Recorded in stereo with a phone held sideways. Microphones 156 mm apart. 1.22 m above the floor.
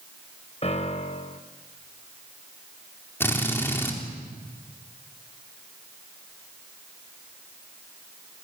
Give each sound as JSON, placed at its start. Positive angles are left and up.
{"t": 0.6, "sound": "a piano", "side_deg": 40, "distance_m": 1.3}
{"t": 3.2, "sound": "a drill", "side_deg": 15, "distance_m": 4.0}